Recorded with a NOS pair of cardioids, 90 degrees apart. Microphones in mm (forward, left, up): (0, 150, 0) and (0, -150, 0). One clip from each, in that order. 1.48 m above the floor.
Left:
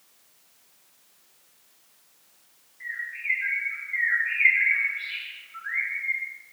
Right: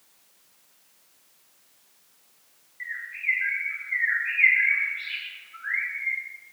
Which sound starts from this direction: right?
A bird, at 2.8 s.